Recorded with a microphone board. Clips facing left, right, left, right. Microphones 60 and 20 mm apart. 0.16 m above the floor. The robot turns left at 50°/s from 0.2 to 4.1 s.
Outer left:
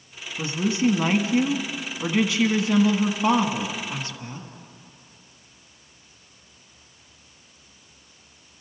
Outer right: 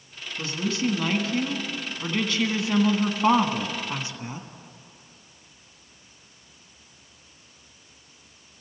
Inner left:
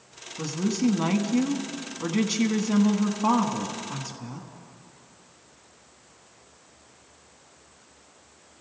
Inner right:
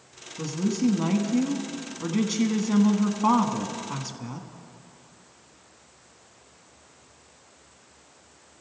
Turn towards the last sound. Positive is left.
turn(degrees=-20)  # may be behind; listen again after turning